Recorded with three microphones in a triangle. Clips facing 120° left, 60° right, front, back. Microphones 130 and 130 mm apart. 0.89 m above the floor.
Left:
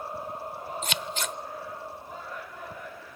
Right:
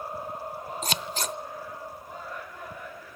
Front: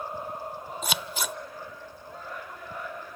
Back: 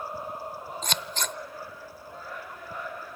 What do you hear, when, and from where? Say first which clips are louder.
0.8 s scissors: right 3 dB, front 1 dB; 75° right, 0.7 m